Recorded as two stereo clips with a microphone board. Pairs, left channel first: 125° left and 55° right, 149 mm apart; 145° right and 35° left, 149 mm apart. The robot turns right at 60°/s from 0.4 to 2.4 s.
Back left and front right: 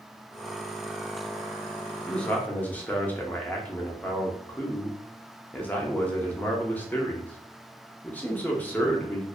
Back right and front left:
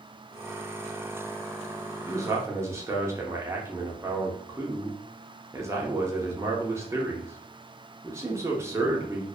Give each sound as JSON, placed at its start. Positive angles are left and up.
{"t": 2.1, "sound": "a man speaking", "azimuth_deg": 45, "distance_m": 0.6}